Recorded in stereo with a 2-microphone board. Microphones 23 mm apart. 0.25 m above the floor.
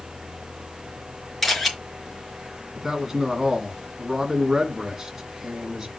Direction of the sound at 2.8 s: 20° right (ahead or behind).